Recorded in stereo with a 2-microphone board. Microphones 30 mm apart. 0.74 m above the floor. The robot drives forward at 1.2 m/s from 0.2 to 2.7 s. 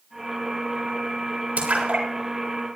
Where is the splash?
55° right (ahead or behind), 5 m; by 2.0 s 65° right (ahead or behind), 4.5 m.